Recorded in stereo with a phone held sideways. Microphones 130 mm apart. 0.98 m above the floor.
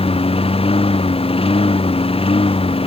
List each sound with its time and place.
0.0 s a lawn mower: 45° left (ahead or behind)